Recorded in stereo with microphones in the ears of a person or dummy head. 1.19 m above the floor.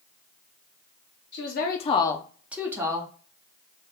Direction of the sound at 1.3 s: 45° left (ahead or behind).